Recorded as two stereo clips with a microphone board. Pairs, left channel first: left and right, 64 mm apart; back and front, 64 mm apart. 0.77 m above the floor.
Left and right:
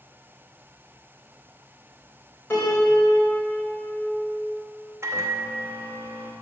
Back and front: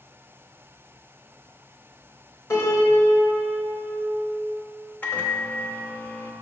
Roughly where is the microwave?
Behind right.